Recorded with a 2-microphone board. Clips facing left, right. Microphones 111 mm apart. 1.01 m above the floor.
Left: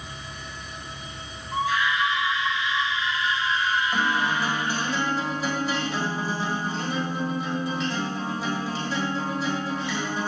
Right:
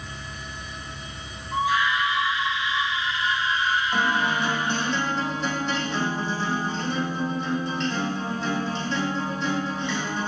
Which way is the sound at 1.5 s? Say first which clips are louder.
Right 2 dB; 20° right (ahead or behind).